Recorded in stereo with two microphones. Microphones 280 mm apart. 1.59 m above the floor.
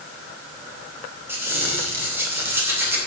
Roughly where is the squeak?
Centre.